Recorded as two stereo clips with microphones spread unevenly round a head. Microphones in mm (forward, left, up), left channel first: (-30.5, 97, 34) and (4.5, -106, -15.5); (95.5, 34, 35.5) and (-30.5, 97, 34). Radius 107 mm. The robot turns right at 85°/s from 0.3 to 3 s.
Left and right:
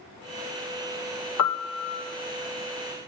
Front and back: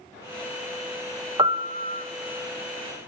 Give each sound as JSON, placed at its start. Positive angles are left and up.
{"t": 1.4, "sound": "a piano", "azimuth_deg": 95, "distance_m": 0.7}